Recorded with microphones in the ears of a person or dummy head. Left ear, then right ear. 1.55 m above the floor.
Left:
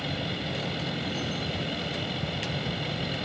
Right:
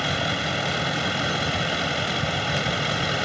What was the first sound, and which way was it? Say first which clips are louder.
A vehicle: right 8 dB; 50° right (ahead or behind).